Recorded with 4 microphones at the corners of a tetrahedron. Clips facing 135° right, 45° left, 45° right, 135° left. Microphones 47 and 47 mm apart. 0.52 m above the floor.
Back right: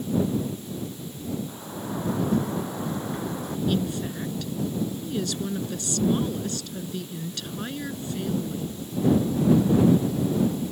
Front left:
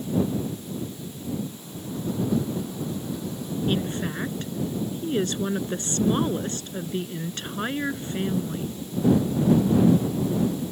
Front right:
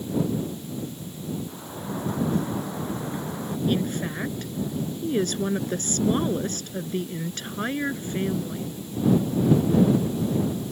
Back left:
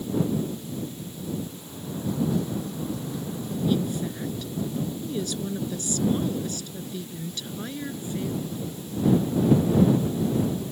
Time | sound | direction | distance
1.5 | a sliding door | 90° right | ?
3.7 | a woman speaking | 5° right | ?